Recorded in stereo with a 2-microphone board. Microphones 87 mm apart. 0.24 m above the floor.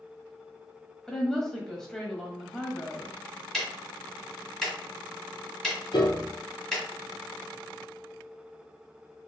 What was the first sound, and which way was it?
A woman speaking, 5° left (ahead or behind).